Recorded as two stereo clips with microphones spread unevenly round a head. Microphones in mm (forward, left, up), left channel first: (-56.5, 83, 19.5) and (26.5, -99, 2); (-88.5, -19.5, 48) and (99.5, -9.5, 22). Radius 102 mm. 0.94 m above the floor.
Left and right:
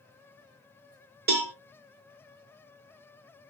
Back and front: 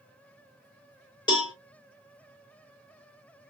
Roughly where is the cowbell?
Right.